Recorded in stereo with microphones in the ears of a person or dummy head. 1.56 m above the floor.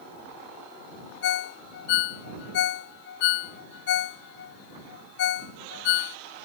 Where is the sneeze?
I don't hear a sneeze.